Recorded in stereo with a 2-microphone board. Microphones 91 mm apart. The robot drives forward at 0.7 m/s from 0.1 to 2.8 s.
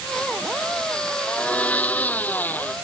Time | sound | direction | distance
1.3 | a blender | 15° left (ahead or behind) | ?